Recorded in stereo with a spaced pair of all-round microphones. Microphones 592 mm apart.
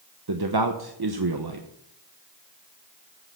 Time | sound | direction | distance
0.3 | a man speaking | 40° right (ahead or behind) | 0.9 m